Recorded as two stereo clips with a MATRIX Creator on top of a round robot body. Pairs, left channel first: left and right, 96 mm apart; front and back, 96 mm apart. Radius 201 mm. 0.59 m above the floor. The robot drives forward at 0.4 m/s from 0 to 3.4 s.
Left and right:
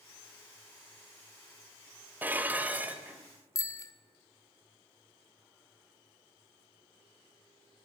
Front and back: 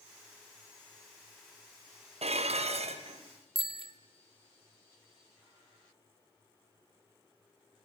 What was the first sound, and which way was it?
Dishes clattering, 165° right.